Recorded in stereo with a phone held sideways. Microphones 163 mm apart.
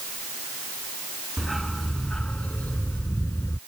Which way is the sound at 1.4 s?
Centre (ahead or behind).